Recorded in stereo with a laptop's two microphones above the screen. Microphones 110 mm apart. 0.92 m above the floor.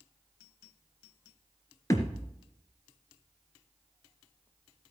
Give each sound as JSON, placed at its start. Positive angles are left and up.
{"t": 1.9, "sound": "a thud", "side_deg": 30, "distance_m": 1.8}